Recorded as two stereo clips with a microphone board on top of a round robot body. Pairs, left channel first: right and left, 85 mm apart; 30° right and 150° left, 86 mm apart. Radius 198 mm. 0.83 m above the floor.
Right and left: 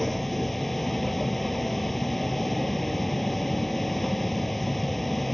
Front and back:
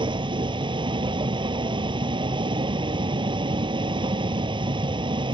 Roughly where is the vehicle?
Behind.